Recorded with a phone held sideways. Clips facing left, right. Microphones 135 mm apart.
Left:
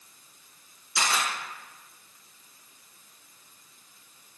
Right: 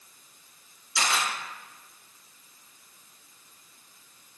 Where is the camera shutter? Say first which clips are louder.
Even; 50° left (ahead or behind), 3 m.